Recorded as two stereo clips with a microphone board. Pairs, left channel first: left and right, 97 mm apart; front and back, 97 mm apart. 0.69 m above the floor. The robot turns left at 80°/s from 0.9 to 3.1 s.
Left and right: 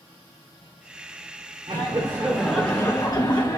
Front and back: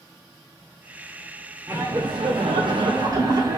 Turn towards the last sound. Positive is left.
turn(degrees=135)